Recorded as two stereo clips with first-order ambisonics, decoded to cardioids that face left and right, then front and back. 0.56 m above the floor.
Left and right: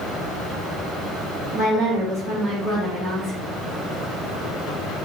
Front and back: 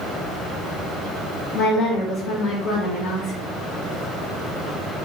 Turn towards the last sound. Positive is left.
turn(degrees=-10)